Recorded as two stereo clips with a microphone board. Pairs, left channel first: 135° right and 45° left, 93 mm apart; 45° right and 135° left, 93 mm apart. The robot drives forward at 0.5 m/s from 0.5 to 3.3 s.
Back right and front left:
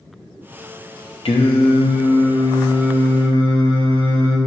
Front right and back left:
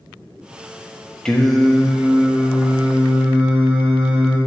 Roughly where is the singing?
Behind right.